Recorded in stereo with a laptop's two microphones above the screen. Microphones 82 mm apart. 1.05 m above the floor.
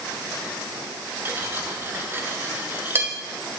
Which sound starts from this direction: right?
Cutlery clinking, at 1.2 s.